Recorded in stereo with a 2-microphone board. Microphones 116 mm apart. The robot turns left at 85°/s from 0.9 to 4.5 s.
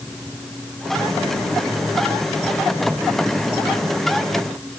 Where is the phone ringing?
I don't hear a phone ringing.